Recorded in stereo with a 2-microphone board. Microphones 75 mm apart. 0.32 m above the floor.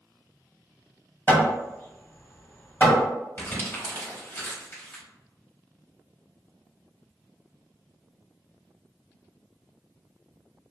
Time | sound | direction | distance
1.3 | hammering | 25° left (ahead or behind) | 1.6 m
3.4 | crumpling | 25° left (ahead or behind) | 1.0 m